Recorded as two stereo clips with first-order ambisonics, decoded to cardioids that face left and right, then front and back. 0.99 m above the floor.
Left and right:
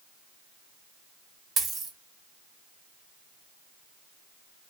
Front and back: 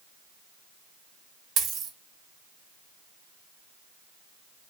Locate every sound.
1.6 s a dropped coin: 150° right, 0.7 m